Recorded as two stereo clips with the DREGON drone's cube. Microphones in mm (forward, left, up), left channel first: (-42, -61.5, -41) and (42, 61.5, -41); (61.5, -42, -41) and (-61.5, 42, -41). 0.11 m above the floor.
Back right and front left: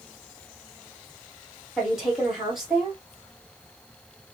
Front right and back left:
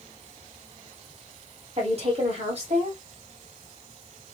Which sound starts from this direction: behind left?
A woman speaking, at 1.8 s.